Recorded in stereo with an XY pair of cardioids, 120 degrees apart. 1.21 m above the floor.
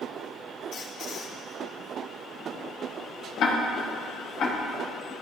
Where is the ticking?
60° left, 1.1 m.